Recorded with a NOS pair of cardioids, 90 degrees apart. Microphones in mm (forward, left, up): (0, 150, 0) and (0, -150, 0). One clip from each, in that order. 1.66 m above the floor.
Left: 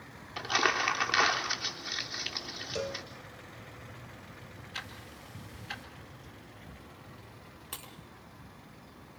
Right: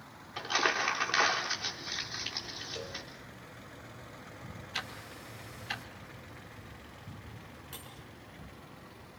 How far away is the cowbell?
About 1.6 m.